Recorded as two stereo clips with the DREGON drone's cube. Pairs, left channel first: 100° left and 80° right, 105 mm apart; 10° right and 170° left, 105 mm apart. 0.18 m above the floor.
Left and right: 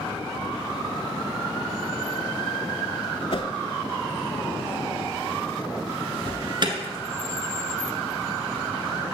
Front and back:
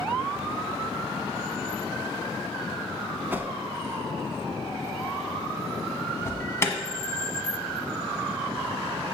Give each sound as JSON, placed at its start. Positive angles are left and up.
{"t": 3.3, "sound": "a whoosh", "azimuth_deg": 100, "distance_m": 0.5}
{"t": 6.2, "sound": "an alarm", "azimuth_deg": -65, "distance_m": 1.4}